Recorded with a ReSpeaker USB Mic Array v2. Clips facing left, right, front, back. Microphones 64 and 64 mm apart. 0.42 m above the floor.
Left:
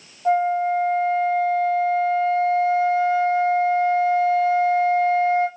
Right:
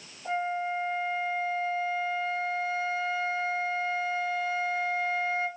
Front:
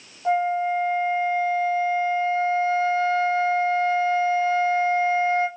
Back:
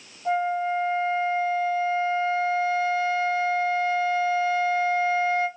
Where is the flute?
55° left, 0.6 m.